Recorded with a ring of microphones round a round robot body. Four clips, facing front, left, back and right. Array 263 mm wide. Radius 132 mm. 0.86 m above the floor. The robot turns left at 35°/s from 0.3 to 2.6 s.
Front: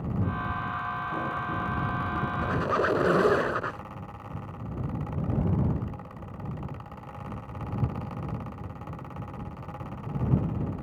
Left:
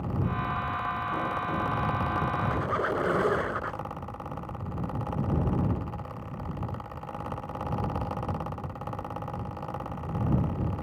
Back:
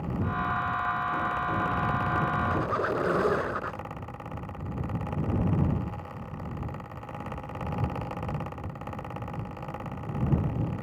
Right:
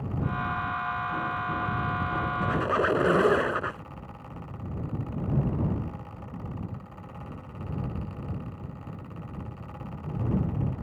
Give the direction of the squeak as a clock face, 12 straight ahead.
2 o'clock.